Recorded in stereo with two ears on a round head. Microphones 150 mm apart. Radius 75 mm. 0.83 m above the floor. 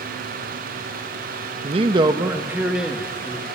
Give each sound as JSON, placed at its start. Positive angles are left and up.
{"t": 1.6, "sound": "a man speaking", "side_deg": -35, "distance_m": 0.8}